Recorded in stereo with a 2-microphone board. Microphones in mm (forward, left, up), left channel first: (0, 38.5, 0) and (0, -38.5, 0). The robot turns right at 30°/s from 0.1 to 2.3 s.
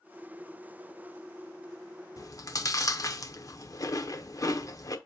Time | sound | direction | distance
2.2 | chewing | 50° left (ahead or behind) | 0.7 m